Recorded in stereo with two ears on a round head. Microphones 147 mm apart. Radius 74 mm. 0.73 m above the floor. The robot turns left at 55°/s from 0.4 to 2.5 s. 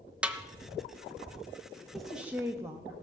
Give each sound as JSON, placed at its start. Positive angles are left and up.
{"t": 0.2, "sound": "a snare drum", "side_deg": -10, "distance_m": 0.8}
{"t": 1.9, "sound": "a woman speaking", "azimuth_deg": 5, "distance_m": 0.7}